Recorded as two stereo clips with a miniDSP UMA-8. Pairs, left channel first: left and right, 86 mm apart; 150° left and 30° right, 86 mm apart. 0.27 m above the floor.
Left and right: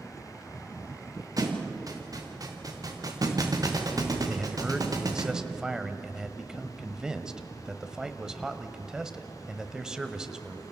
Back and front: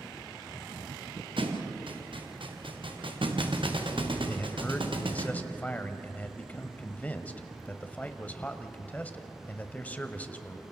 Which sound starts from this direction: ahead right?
A thud, at 1.4 s.